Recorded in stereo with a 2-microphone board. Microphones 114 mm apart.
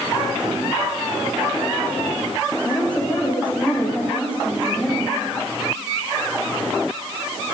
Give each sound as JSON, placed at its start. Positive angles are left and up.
{"t": 2.6, "sound": "a woman speaking", "side_deg": 10, "distance_m": 8.0}